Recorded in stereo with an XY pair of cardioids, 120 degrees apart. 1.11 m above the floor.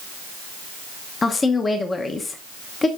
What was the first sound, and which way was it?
A woman speaking, 25° left.